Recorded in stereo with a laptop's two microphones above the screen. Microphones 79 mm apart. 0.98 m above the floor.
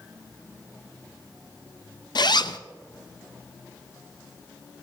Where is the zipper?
65° left (ahead or behind), 0.5 m.